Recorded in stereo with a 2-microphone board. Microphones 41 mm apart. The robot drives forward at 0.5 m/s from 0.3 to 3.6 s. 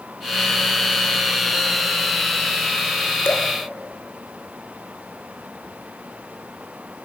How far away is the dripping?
About 2.5 m.